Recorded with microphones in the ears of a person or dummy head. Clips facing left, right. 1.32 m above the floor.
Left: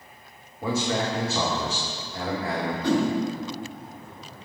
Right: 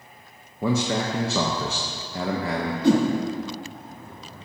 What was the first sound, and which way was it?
A man speaking, 55° right (ahead or behind).